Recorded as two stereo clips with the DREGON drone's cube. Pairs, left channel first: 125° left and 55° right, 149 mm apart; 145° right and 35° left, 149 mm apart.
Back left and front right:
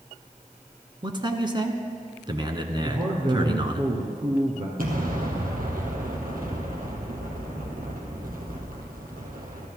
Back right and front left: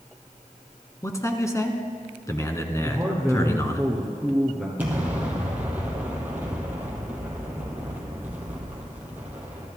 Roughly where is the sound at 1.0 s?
Right.